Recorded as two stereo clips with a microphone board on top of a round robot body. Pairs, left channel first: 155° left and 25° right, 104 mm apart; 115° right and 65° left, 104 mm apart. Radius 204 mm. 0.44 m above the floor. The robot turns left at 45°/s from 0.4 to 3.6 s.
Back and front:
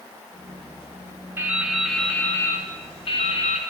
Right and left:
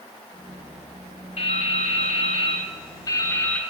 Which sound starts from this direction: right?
Dripping, at 1.4 s.